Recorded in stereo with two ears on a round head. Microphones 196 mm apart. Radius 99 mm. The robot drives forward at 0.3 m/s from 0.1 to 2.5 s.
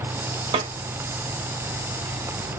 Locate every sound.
0.5 s a snare drum: 25° right (ahead or behind), 0.5 m